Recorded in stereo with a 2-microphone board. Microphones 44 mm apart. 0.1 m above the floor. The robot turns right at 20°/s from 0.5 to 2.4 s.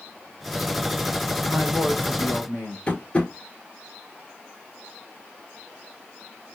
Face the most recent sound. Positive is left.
turn(degrees=30)  # may be behind; listen again after turning